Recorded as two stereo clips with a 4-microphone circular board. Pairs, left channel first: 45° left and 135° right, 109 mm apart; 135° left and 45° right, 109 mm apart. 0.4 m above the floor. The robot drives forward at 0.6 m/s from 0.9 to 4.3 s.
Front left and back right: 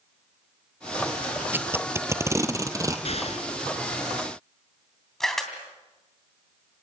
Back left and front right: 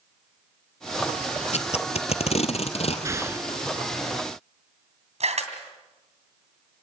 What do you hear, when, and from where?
1.5 s tape being pulled: 150° left, 1.2 m; by 3.0 s 165° left, 2.0 m
3.0 s an explosion: 20° left, 1.7 m
5.2 s a camera shutter: 40° right, 3 m